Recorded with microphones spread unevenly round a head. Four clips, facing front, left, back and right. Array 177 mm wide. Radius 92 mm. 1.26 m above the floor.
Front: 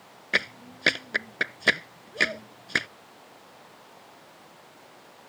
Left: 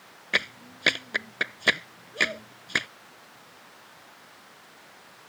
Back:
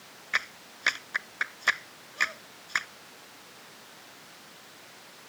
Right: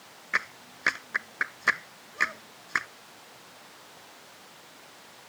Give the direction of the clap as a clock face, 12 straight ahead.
11 o'clock.